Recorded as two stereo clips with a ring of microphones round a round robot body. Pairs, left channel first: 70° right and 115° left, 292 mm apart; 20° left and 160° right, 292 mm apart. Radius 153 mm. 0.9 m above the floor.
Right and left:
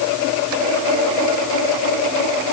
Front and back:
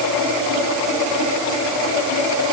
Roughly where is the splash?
No splash in this recording.